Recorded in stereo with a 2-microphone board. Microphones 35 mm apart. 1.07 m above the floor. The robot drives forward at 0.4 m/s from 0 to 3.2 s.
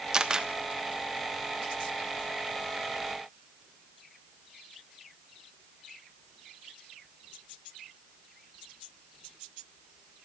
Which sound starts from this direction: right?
A camera shutter, at 0.1 s.